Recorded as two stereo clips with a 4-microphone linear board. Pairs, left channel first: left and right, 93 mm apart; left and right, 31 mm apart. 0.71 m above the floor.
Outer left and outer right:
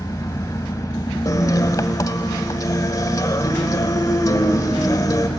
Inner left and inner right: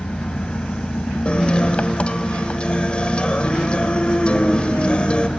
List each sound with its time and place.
0.0 s an engine running: 40° left (ahead or behind), 1.0 m
1.2 s a guitar: 40° left (ahead or behind), 1.2 m